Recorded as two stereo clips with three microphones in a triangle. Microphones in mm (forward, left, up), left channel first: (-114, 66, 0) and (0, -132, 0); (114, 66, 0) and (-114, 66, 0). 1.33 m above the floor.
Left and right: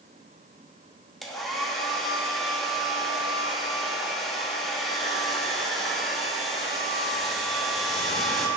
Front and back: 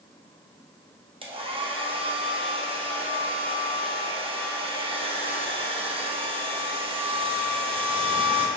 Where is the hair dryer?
150° right, 0.8 m.